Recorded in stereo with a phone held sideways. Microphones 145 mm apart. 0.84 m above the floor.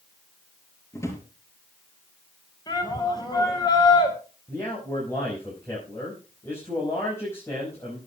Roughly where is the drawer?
Left.